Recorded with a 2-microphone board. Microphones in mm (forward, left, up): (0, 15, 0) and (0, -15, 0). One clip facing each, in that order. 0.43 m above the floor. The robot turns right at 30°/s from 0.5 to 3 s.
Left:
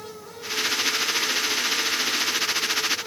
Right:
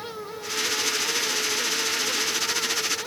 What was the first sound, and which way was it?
Only background noise.